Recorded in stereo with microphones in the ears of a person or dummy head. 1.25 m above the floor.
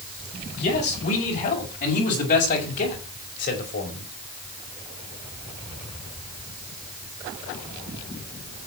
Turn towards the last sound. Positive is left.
turn(degrees=45)  # may be behind; listen again after turning